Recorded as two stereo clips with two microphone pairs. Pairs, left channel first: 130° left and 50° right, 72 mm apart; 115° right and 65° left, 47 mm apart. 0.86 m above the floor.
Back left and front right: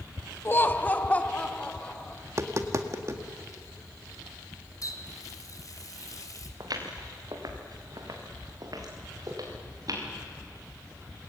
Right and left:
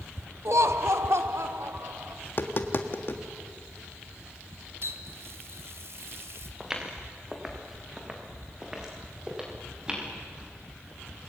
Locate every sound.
0.5 s laughter: 75° left, 1.0 m; by 2.1 s 55° left, 3 m
2.2 s tapping: 90° right, 1.6 m
4.8 s a running tap: 95° left, 2.5 m
6.6 s footsteps: 15° right, 4.5 m; by 10.1 s 10° right, 7 m